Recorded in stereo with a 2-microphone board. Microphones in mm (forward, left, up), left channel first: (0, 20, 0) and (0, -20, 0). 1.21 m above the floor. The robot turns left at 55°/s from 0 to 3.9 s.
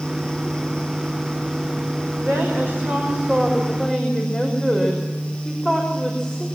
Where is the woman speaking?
100° right, 5.5 m; by 6.5 s 165° left, 5.5 m.